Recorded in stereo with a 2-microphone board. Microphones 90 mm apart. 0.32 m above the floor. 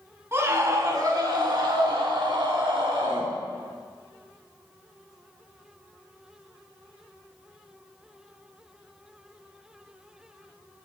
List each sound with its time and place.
0.3 s a scream: 30° right (ahead or behind), 2.5 m; by 3.3 s 70° right (ahead or behind), 3 m